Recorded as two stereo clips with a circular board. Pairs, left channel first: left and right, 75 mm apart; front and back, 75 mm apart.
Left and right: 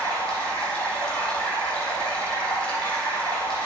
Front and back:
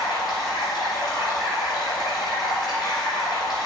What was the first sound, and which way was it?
Running water, 15° left.